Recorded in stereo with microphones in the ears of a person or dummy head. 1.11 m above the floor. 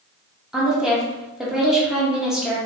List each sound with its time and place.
0.5 s a woman speaking: 5° right (ahead or behind), 0.7 m